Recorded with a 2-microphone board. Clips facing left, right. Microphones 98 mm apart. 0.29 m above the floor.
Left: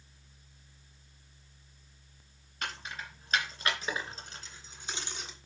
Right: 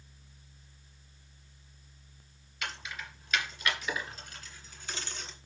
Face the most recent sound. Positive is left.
turn(degrees=10)  # may be behind; listen again after turning